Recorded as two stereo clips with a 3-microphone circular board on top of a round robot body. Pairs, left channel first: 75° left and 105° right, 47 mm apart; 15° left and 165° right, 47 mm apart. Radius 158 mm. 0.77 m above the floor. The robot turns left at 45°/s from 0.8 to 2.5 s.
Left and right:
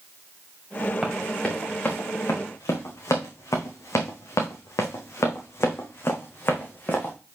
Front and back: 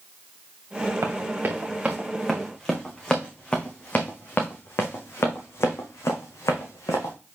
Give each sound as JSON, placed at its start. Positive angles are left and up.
{"t": 1.0, "sound": "running footsteps", "azimuth_deg": 170, "distance_m": 3.5}